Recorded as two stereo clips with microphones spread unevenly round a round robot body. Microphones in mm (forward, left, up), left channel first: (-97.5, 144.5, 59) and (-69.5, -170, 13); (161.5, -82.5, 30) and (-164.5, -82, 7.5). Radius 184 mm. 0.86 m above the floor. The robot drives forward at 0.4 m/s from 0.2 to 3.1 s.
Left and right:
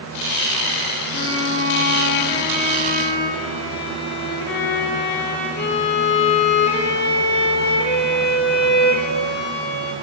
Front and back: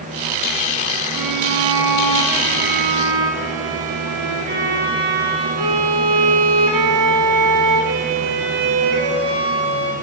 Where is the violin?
145° left, 2 m; by 9.9 s 155° left, 3 m.